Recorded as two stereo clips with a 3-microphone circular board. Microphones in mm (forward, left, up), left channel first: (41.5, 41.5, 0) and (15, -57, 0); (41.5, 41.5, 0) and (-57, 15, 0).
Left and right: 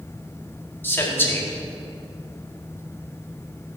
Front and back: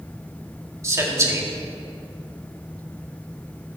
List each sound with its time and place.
0.8 s a man speaking: 140° left, 1.8 m